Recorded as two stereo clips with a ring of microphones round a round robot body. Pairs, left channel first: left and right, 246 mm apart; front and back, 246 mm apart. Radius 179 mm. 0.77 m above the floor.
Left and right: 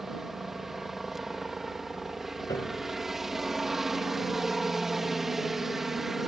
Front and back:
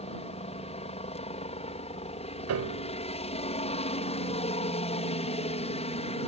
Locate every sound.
0.0 s a helicopter: 5° right
2.5 s a piano: 170° left